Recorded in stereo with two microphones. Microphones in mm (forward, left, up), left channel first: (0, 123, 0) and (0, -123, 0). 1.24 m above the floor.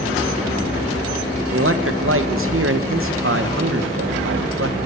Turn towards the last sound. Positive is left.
turn(degrees=-55)  # may be behind; listen again after turning